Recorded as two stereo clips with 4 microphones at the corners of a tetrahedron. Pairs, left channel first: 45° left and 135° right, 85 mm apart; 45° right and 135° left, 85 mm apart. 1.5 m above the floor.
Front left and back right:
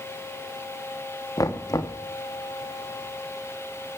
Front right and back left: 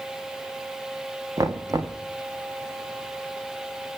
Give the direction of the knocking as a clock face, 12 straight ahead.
9 o'clock.